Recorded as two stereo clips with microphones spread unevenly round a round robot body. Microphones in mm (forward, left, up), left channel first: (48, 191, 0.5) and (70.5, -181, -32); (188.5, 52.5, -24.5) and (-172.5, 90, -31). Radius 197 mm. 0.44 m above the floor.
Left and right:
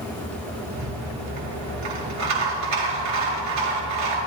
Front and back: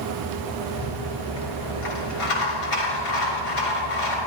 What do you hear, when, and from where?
0.7 s a rattle: 40° right, 5.5 m